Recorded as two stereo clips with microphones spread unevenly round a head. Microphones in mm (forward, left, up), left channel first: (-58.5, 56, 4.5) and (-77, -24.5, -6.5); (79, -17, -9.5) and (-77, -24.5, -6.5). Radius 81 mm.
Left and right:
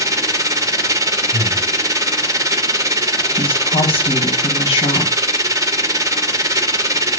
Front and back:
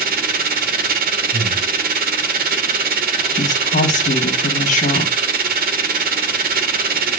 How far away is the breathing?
About 4 m.